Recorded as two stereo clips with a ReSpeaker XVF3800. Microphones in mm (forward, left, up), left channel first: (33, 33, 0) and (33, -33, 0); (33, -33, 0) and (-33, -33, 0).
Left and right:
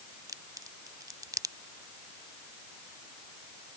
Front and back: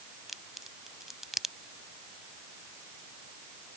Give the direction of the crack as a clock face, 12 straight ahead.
3 o'clock.